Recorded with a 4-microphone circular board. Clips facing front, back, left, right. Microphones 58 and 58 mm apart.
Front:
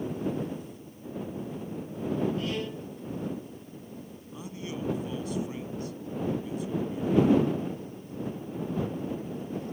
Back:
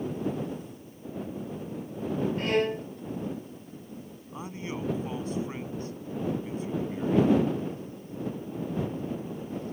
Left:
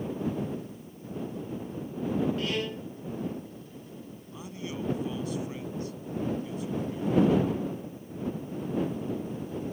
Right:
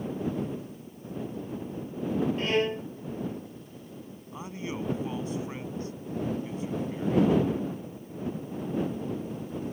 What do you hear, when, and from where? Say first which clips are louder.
2.4 s a violin: back 6 dB, right 5 dB; 145° right
4.3 s a man speaking: back 2 dB, right 2 dB; 140° right